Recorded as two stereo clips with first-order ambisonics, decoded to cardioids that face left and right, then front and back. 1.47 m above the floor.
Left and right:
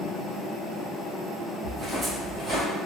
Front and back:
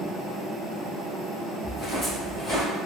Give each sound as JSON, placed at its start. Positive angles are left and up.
{"t": 1.6, "sound": "footsteps", "azimuth_deg": -75, "distance_m": 1.5}